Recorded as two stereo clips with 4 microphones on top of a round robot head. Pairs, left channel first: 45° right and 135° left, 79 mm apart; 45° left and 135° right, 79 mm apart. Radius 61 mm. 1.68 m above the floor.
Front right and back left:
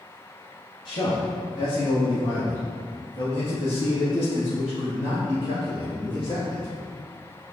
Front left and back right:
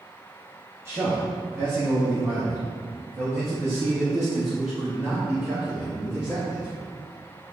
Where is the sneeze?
I don't hear a sneeze.